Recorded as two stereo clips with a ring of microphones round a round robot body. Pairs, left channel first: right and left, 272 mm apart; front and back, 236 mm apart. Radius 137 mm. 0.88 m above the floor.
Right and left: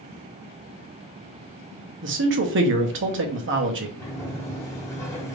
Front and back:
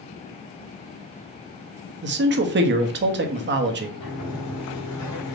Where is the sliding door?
10° right, 1.3 m.